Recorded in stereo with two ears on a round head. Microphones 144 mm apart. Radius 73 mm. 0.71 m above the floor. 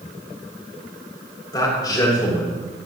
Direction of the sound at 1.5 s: 25° left (ahead or behind).